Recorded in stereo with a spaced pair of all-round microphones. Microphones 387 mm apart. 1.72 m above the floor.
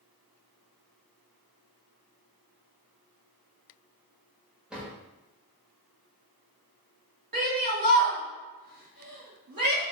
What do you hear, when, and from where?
4.7 s a drawer: centre (ahead or behind), 1.2 m
7.3 s a shout: 60° right (ahead or behind), 0.9 m